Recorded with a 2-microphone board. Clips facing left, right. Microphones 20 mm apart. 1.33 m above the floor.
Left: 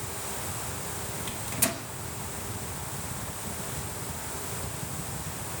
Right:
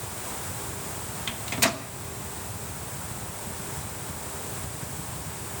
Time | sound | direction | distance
1.3 | a microwave | 35° right (ahead or behind) | 0.9 m